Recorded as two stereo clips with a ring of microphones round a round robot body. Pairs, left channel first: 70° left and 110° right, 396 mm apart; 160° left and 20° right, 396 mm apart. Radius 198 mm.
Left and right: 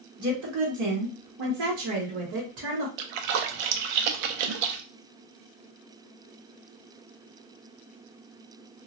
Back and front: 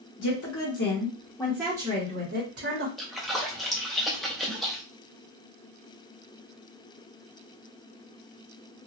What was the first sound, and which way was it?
A woman speaking, 155° right.